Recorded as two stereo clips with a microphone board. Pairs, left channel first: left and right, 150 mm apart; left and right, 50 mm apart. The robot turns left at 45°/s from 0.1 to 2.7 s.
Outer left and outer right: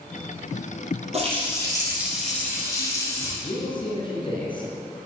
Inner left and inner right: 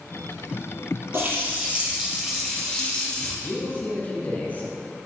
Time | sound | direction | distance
1.1 | a running tap | 130° right | 2 m
3.4 | a man speaking | 35° left (ahead or behind) | 1.7 m